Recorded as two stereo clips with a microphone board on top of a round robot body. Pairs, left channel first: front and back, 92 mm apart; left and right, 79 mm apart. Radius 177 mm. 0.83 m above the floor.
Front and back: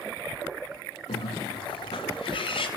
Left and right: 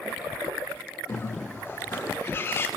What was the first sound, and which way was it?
A bird, 25° left.